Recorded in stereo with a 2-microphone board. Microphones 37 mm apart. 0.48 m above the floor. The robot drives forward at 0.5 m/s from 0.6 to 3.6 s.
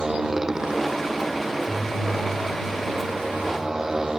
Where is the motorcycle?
20° right (ahead or behind); by 4.2 s 15° right (ahead or behind).